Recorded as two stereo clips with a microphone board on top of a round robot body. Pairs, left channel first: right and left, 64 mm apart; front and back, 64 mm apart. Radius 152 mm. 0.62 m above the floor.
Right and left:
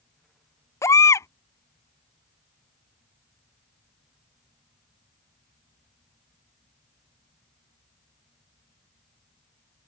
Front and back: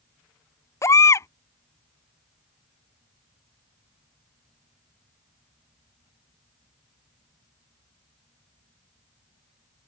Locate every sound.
0.8 s a baby crying: 45° right